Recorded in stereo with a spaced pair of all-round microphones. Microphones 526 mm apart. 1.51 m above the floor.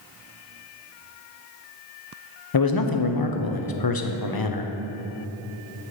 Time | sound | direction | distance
2.5 | a man speaking | 45° left (ahead or behind) | 0.6 m